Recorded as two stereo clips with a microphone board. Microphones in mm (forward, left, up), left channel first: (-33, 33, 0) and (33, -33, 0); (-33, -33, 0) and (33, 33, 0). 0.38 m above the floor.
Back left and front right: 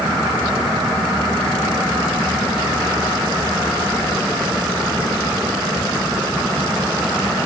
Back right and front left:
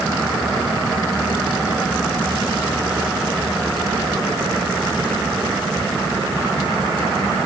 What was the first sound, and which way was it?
Only background noise.